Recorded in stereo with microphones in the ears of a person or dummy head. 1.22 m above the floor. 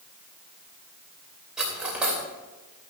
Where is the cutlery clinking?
Centre (ahead or behind), 3 m.